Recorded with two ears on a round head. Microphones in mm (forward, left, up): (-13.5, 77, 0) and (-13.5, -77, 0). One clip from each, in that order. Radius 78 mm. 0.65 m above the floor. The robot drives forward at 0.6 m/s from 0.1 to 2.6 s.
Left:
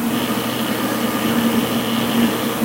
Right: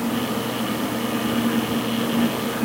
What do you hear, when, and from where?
Only background noise.